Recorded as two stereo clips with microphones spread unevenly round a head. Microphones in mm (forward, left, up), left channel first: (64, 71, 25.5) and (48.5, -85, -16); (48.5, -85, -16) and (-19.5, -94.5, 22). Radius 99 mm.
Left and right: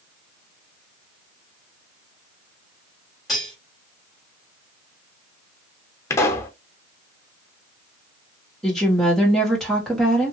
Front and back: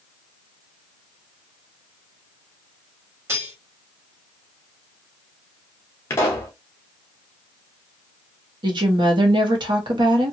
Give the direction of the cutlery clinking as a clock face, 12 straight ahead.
6 o'clock.